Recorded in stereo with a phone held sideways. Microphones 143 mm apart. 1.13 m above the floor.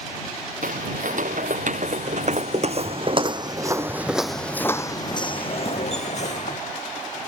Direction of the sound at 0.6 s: 65° right (ahead or behind).